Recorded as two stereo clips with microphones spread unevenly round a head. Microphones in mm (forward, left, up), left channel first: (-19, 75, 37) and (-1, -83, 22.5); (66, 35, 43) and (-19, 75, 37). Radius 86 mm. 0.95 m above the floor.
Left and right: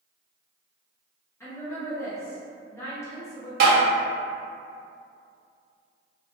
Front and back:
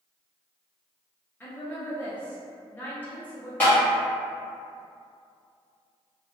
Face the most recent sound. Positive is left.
turn(degrees=-105)